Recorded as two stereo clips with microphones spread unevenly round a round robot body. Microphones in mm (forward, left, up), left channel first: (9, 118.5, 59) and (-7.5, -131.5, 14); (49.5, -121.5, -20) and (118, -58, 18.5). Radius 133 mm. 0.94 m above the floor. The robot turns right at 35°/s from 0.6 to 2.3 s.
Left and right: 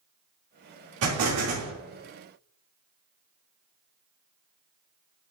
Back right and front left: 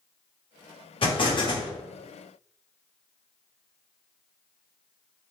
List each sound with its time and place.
1.0 s an explosion: 120° right, 2.5 m; by 1.7 s 95° right, 2.5 m